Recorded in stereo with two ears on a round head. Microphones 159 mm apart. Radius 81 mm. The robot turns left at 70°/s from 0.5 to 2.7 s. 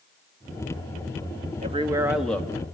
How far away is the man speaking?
About 1.7 m.